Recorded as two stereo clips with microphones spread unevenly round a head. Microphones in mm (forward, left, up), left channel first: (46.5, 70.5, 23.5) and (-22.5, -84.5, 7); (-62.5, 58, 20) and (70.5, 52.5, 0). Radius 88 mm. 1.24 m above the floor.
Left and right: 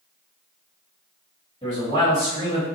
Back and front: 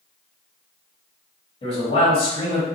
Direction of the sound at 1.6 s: 130° left.